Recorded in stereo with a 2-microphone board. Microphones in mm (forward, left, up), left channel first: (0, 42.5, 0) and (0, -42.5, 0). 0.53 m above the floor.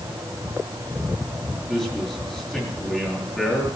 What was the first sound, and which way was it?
A man speaking, 5° left (ahead or behind).